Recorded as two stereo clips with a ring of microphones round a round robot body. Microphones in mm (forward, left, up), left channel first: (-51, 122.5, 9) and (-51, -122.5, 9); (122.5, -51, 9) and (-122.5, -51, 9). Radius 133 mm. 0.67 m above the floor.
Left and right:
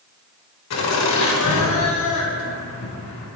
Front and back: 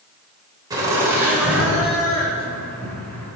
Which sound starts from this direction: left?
Laughter, at 0.7 s.